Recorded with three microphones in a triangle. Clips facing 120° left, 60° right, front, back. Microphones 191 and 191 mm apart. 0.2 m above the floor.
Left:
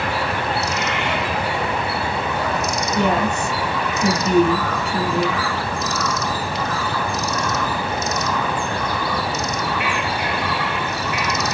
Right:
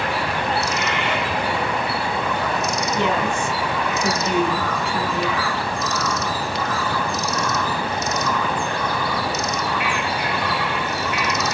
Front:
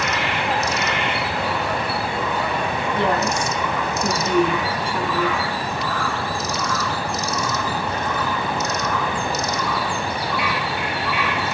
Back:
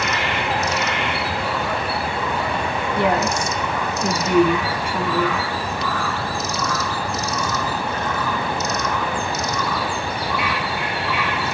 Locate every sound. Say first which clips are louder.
3.0 s a woman speaking: left 3 dB, back 2 dB; 105° left, 1.8 m